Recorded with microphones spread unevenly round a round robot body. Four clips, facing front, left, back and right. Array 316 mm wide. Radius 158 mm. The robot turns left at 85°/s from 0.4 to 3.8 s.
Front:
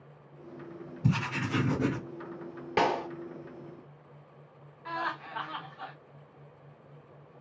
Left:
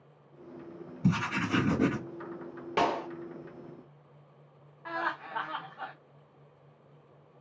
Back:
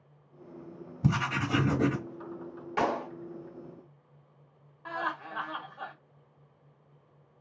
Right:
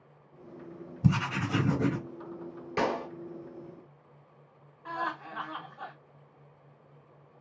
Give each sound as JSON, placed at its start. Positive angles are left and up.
{"t": 1.0, "sound": "writing", "azimuth_deg": -135, "distance_m": 1.0}
{"t": 2.8, "sound": "a clap", "azimuth_deg": 30, "distance_m": 0.8}
{"t": 4.8, "sound": "laughter", "azimuth_deg": 155, "distance_m": 1.2}